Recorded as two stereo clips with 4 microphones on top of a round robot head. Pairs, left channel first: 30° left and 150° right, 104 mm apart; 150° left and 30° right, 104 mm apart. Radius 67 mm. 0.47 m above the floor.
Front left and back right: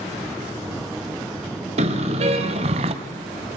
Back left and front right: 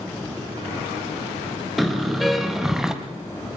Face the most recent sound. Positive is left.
turn(degrees=-115)